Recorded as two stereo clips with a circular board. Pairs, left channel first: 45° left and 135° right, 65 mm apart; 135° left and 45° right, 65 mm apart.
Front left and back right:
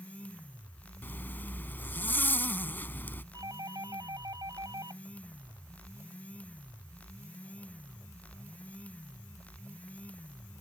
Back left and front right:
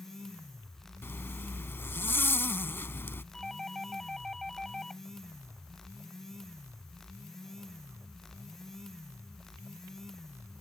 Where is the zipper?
95° left.